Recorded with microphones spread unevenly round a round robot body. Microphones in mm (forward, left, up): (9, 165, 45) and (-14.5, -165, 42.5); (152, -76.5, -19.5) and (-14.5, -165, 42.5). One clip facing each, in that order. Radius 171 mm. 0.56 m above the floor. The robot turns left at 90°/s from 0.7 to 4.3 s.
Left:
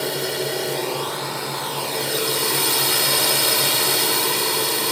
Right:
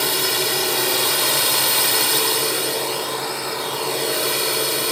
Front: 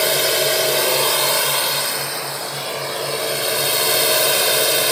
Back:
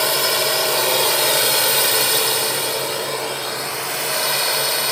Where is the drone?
30° right; by 4.9 s 5° left.